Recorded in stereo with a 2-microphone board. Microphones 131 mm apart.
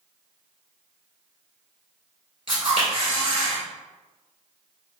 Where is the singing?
I don't hear singing.